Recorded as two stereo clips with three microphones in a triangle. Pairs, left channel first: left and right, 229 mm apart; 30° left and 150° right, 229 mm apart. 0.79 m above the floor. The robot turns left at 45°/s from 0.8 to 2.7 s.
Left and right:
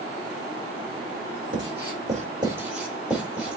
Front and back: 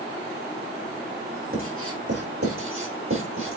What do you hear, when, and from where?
1.5 s writing: 120° right, 4 m; by 3.6 s 175° right, 4 m